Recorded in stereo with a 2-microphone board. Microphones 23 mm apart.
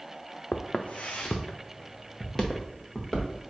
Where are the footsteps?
75° left (ahead or behind), 0.5 m; by 3.4 s 5° left (ahead or behind), 1.6 m.